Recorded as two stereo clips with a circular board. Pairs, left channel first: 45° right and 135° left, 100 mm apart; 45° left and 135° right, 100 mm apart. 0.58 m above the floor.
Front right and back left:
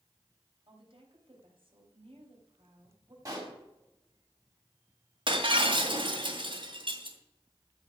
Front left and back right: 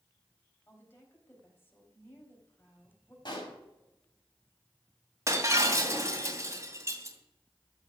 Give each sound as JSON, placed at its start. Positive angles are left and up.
{"t": 0.7, "sound": "a woman speaking", "azimuth_deg": 110, "distance_m": 3.5}
{"t": 3.2, "sound": "a pop", "azimuth_deg": 85, "distance_m": 4.5}
{"t": 5.3, "sound": "breaking glass", "azimuth_deg": 165, "distance_m": 2.5}